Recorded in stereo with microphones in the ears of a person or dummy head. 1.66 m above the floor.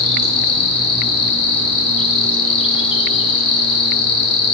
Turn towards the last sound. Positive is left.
turn(degrees=30)  # may be behind; listen again after turning